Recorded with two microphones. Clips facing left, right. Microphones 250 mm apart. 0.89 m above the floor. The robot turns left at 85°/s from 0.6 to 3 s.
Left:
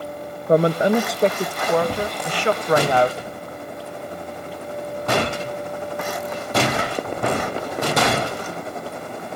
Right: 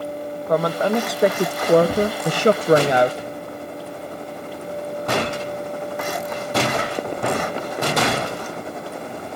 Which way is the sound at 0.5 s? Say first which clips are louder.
Left 4 dB; 45° left.